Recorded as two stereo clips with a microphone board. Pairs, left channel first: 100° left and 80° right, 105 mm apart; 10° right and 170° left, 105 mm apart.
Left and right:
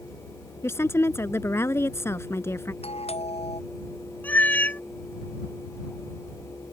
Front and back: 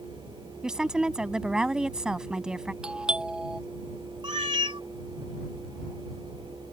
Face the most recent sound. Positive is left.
turn(degrees=165)